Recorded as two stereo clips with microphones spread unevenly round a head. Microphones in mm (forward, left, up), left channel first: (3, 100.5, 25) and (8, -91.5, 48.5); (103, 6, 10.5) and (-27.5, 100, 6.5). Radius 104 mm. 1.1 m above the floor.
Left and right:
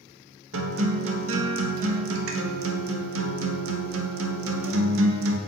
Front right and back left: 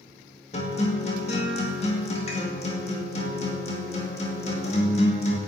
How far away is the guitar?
About 2 m.